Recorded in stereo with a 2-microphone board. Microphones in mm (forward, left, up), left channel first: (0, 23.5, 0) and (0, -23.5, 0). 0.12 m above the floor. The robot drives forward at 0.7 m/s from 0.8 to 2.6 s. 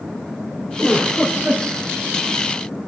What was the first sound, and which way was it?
A giggle, 30° right (ahead or behind).